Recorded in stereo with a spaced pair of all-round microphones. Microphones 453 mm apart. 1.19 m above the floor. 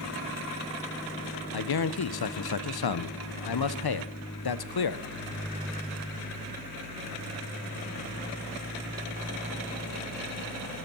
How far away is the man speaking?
About 0.5 m.